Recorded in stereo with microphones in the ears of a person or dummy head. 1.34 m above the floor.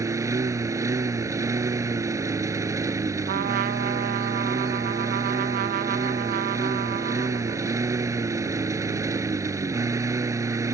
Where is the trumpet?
45° right (ahead or behind).